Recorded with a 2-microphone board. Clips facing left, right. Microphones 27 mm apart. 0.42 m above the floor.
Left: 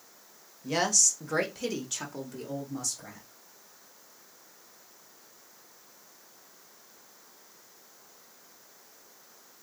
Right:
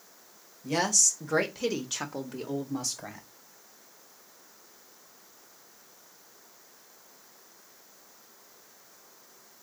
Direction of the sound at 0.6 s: 10° left (ahead or behind).